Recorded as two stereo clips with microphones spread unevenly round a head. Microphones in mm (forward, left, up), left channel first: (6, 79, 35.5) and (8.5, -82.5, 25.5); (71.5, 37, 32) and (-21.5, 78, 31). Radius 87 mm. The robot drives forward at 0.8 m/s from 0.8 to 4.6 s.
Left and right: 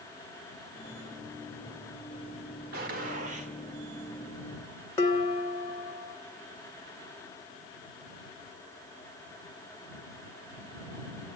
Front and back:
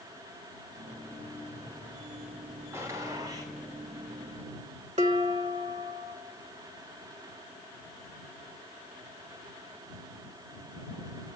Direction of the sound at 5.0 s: 165° left.